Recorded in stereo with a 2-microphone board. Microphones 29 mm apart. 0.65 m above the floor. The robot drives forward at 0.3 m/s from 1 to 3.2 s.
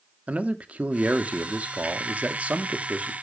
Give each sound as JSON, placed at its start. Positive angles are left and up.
{"t": 0.3, "sound": "a man speaking", "side_deg": -50, "distance_m": 1.1}